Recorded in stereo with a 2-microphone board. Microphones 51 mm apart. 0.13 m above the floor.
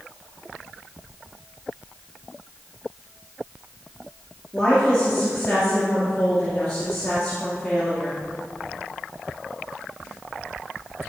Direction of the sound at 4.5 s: 10° left (ahead or behind).